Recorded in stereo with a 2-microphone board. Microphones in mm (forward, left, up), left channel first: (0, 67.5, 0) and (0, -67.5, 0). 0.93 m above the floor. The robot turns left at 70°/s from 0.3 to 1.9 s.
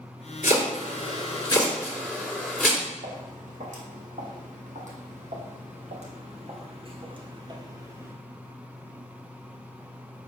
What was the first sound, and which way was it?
Chopping, 70° left (ahead or behind).